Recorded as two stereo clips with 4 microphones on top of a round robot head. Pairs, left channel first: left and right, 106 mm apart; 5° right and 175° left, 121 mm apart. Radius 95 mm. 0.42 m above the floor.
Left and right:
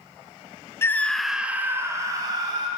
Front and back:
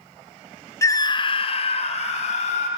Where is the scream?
40° left, 1.0 m; by 2.7 s 35° right, 2.5 m.